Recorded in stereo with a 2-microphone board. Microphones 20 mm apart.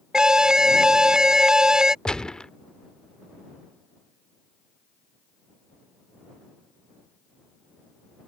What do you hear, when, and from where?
0.1 s an alarm: 25° right (ahead or behind)
2.0 s a gunshot: 45° left (ahead or behind)